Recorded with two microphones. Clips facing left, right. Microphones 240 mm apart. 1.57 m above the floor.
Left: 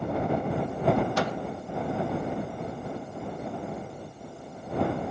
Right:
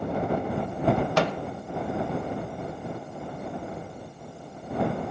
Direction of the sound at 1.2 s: 80° right.